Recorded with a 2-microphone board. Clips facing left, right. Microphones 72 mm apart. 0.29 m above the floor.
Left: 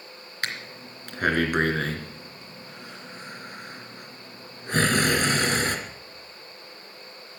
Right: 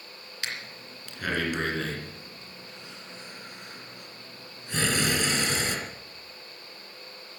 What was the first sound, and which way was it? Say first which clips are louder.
Breathing: left 4 dB; 45° left (ahead or behind).